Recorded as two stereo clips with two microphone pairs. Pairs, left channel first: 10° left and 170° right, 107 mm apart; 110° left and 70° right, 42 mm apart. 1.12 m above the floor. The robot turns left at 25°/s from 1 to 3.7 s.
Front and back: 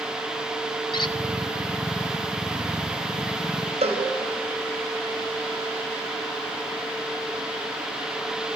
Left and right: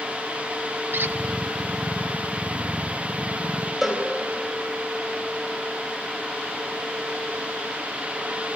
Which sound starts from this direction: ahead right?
A squeak, at 0.9 s.